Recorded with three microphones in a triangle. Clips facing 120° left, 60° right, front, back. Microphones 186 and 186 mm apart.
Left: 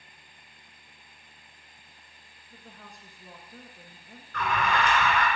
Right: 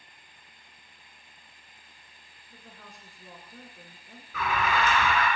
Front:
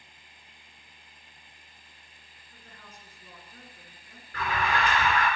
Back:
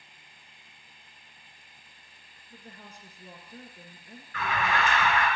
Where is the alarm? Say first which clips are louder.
Even, even; 20° left, 3 m.